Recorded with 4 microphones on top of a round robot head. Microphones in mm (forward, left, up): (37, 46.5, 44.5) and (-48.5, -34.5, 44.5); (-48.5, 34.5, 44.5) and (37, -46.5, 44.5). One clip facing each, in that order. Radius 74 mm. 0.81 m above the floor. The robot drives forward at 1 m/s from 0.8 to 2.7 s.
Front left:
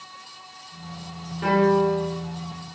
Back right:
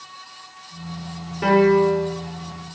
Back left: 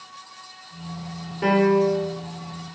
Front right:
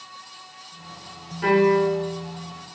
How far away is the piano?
About 1.2 m.